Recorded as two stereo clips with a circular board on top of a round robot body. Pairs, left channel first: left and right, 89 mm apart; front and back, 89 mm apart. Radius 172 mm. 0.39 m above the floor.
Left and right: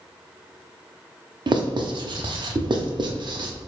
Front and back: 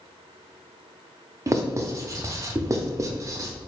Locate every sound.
1.5 s writing: 125° right, 0.6 m